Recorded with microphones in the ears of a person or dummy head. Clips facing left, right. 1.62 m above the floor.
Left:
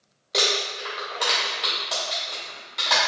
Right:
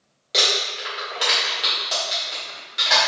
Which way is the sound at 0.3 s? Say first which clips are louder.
Even; 10° right (ahead or behind).